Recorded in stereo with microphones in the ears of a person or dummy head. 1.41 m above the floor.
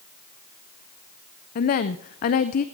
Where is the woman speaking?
50° left (ahead or behind), 0.6 m.